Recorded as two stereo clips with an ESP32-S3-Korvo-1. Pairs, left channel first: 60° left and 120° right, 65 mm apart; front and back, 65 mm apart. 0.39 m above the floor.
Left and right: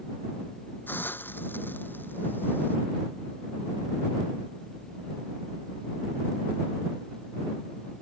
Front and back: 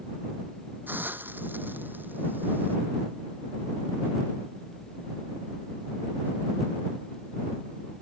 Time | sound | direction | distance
0.9 | a hiss | 120° left | ?